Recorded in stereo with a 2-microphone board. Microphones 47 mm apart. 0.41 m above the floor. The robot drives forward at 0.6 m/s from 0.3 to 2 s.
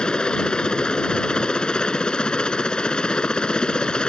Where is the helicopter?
20° left (ahead or behind).